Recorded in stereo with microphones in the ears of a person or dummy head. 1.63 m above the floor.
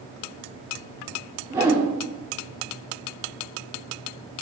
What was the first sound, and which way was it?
A whoosh, 10° right (ahead or behind).